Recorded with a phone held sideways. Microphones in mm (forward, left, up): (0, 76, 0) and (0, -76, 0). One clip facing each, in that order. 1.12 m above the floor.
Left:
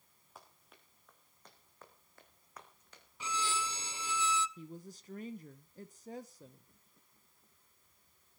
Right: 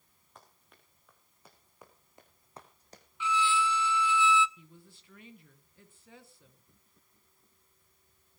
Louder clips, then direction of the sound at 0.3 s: Even; 5° left (ahead or behind).